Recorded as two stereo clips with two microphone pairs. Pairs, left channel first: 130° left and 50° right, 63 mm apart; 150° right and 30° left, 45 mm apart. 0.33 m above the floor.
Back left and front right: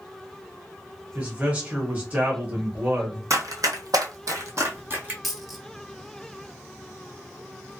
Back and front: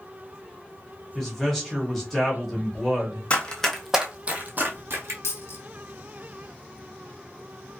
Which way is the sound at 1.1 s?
70° right.